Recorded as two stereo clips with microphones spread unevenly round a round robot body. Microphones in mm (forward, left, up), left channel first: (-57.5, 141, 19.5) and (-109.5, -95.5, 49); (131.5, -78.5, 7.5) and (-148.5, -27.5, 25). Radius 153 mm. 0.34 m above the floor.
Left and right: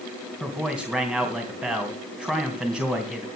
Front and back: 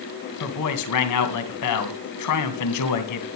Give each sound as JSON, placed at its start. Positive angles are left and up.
{"t": 0.4, "sound": "a man speaking", "azimuth_deg": -10, "distance_m": 2.5}